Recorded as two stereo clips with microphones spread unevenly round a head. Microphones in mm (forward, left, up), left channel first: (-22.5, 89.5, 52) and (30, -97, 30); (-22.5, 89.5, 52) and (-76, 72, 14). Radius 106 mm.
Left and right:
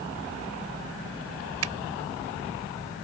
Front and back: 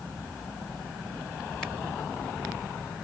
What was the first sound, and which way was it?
A finger snap, 65° right.